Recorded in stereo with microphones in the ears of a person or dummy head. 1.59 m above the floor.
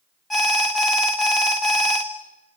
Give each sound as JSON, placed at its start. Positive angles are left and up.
{"t": 0.3, "sound": "an alarm", "side_deg": 0, "distance_m": 1.5}